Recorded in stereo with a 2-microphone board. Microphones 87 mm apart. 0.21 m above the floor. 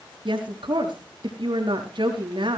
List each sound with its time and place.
0.2 s a woman speaking: 65° right (ahead or behind), 4 m